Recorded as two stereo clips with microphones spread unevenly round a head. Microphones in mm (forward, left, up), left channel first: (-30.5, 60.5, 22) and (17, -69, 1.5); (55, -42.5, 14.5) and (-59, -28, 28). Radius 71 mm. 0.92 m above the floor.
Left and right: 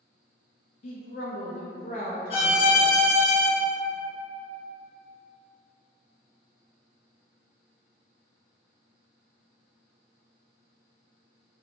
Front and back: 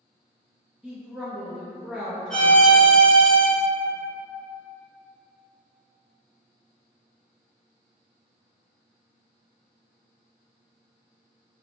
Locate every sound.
0.8 s a woman speaking: 85° left, 0.5 m
2.3 s a violin: 80° left, 0.7 m